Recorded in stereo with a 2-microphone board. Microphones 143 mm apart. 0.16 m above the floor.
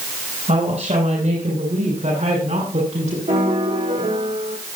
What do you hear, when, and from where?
0.5 s a woman speaking: 60° right (ahead or behind), 6 m; by 3.2 s 70° right (ahead or behind), 7.5 m
3.3 s a piano: 70° right (ahead or behind), 5.5 m